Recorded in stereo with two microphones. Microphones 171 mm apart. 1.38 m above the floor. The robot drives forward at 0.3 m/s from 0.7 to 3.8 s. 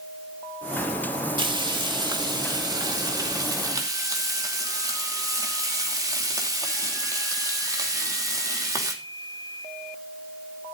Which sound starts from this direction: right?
Frying, at 1.4 s.